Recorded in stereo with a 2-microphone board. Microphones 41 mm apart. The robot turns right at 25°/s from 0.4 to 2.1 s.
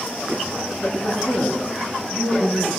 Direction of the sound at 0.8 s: 170° right.